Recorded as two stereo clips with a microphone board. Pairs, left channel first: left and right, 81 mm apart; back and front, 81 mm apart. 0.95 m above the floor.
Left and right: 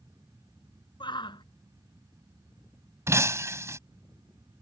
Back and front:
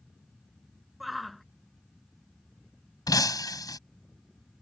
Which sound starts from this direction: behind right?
Breaking glass, at 3.1 s.